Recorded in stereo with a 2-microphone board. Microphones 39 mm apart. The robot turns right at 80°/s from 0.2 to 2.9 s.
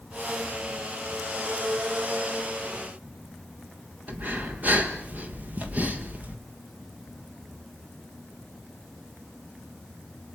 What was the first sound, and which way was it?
Breathing, 45° right (ahead or behind).